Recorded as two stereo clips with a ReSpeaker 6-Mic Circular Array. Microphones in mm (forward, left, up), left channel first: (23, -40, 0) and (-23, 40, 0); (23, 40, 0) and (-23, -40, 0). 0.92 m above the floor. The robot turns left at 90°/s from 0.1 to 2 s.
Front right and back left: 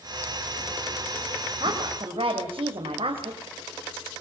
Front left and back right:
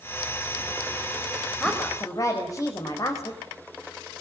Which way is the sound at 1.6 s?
150° left.